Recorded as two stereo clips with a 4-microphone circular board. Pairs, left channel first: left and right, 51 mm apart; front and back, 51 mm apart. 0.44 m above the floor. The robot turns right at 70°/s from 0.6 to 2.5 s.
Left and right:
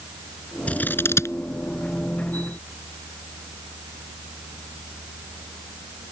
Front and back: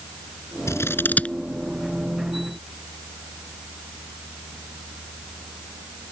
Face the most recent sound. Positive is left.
turn(degrees=150)